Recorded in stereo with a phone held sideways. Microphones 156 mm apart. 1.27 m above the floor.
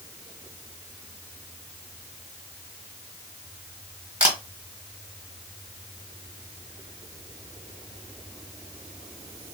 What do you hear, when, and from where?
4.2 s a camera shutter: 10° right (ahead or behind), 1.5 m